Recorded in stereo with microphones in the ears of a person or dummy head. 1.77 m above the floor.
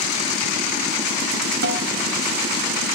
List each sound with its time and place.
1.6 s a snare drum: 70° right (ahead or behind), 0.7 m